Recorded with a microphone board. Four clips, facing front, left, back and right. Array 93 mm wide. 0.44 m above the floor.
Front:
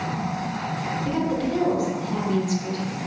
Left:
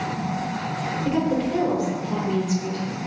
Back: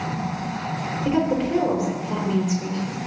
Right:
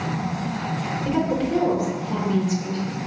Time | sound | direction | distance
1.0 | a woman speaking | 175° left | 1.0 m